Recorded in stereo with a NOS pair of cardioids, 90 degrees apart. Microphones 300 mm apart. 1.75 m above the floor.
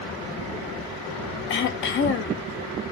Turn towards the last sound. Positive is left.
turn(degrees=40)